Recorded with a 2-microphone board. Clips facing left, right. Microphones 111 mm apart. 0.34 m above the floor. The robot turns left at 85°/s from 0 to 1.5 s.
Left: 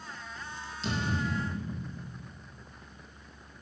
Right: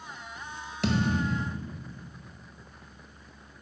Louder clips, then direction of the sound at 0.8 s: Right 5 dB; 105° right.